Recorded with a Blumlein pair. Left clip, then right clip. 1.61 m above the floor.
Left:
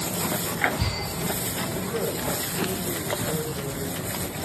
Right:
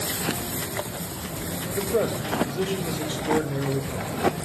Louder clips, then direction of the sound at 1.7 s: Right 8 dB; 45° right.